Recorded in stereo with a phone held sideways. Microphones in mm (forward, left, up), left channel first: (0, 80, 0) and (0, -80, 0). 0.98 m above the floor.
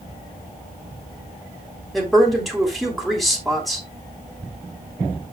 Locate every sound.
1.9 s a woman speaking: centre (ahead or behind), 3.5 m